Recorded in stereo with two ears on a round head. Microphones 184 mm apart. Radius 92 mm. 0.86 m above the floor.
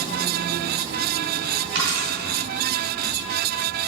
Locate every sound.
1.8 s a dropped coin: 60° right (ahead or behind), 3 m